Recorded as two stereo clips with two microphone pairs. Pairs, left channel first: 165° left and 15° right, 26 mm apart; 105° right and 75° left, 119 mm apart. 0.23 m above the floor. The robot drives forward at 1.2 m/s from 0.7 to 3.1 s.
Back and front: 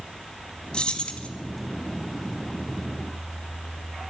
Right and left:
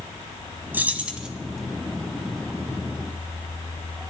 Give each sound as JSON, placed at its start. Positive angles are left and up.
{"t": 0.7, "sound": "keys jangling", "azimuth_deg": 145, "distance_m": 1.2}